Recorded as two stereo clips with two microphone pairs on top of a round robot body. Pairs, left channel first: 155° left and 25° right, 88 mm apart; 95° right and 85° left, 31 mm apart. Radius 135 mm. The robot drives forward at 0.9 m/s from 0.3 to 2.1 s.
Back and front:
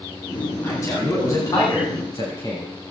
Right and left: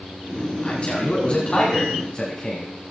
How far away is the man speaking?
About 8.5 m.